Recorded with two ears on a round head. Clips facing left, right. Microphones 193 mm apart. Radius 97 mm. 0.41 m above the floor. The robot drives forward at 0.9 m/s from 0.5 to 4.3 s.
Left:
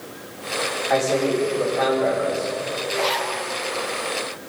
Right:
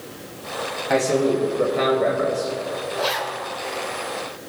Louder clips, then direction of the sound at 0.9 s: Right 2 dB; 40° right (ahead or behind).